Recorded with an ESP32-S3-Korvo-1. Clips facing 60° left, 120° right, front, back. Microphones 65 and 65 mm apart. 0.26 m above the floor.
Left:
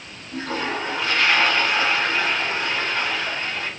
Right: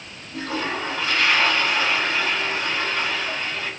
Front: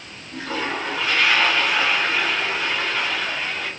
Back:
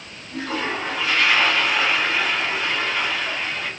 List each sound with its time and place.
0.3 s a toilet flushing: 95° left, 1.8 m